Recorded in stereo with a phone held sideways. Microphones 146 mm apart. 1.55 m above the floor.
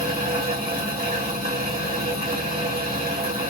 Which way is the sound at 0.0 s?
80° right.